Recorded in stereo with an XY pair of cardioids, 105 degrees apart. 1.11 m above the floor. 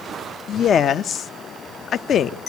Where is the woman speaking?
60° left, 0.6 m.